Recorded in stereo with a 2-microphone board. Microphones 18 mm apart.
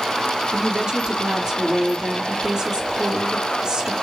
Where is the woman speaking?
40° right (ahead or behind), 3 m.